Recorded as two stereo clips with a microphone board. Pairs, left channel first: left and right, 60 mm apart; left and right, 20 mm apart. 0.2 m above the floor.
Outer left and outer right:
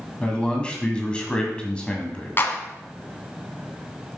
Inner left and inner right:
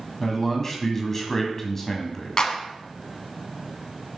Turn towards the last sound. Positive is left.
turn(degrees=40)  # may be behind; listen again after turning